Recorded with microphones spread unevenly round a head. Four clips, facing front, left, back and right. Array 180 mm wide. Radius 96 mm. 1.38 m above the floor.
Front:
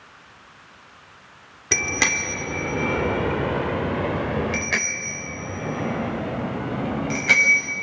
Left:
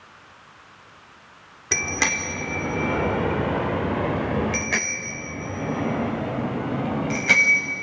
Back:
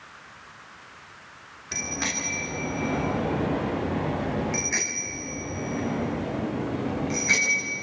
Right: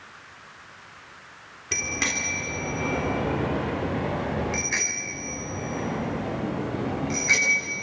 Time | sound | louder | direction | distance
1.7 | a bicycle bell | left 4 dB, front 7 dB | 15° left | 3 m